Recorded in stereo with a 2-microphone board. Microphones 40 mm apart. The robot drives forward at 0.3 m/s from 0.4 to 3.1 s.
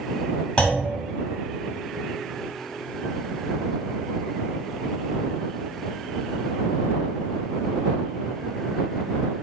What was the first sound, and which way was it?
A clunk, 25° left (ahead or behind).